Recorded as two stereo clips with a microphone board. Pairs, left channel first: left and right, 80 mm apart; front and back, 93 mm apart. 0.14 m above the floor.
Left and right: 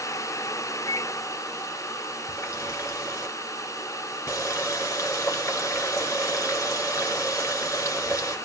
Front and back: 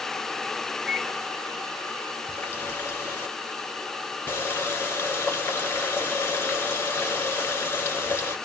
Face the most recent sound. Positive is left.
turn(degrees=55)